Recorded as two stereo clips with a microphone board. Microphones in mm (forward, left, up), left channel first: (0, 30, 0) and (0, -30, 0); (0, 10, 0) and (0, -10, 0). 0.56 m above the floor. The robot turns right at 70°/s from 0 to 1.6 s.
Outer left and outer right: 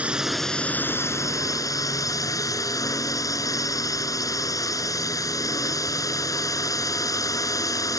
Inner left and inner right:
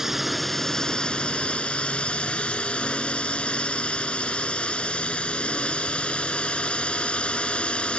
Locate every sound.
0.0 s a drone: 25° right; by 8.0 s 90° left